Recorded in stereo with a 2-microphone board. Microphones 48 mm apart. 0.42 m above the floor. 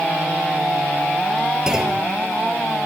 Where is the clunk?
15° right (ahead or behind), 3.5 m.